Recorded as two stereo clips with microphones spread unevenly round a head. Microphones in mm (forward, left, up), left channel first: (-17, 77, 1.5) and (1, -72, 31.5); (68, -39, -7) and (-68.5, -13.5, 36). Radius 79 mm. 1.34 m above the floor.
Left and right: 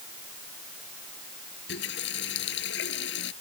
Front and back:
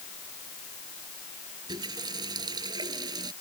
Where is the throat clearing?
No throat clearing in this recording.